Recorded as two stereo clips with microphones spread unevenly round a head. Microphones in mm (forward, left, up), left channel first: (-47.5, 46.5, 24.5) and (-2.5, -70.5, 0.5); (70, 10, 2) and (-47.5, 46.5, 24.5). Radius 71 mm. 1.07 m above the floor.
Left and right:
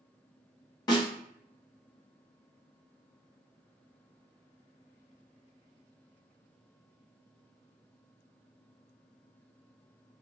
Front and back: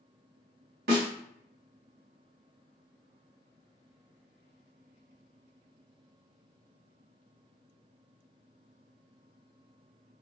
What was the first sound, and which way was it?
A snare drum, 170° left.